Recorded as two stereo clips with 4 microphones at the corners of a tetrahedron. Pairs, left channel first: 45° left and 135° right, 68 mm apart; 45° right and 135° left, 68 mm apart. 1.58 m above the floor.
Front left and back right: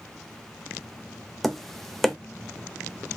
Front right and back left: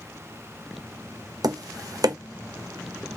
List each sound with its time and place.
1.4 s tapping: 130° left, 0.6 m